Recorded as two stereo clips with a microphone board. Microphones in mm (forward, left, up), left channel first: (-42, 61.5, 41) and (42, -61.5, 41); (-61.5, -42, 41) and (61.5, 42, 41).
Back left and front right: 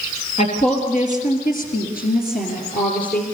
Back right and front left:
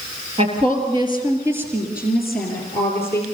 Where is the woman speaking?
80° left, 4 m; by 3.2 s 145° left, 4.5 m.